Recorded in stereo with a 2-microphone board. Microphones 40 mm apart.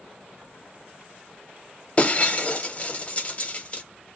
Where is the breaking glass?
35° left (ahead or behind), 0.7 m.